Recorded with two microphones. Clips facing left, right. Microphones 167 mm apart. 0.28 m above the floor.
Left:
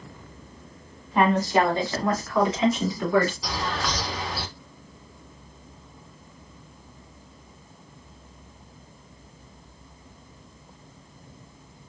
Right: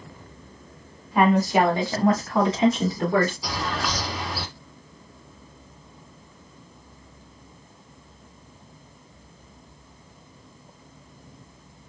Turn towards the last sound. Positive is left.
turn(degrees=-5)  # may be behind; listen again after turning